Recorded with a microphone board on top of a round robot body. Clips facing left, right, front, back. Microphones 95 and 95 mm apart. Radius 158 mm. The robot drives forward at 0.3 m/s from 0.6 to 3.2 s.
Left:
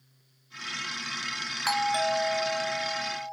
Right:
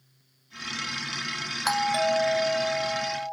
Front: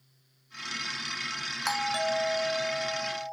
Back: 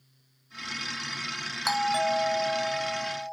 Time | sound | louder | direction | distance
1.6 | a doorbell | right 2 dB, back 4 dB | 105° right | 1.0 m